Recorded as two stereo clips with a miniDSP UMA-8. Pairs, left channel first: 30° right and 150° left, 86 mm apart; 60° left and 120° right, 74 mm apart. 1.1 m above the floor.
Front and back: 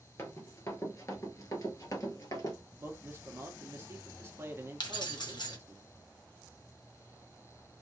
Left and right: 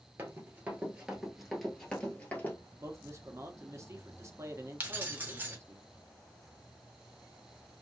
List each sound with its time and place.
0.2 s running footsteps: 70° right, 1.5 m; by 2.5 s straight ahead, 1.6 m
2.8 s a man speaking: 155° right, 0.8 m
4.8 s keys jangling: 55° right, 1.1 m